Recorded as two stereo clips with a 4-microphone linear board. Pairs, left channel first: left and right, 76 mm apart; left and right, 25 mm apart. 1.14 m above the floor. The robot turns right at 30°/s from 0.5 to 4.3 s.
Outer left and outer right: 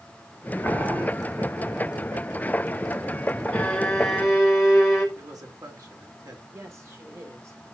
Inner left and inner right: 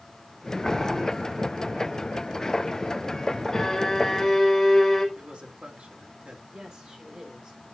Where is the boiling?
25° left (ahead or behind), 3 m; by 1.1 s 15° left (ahead or behind), 3 m.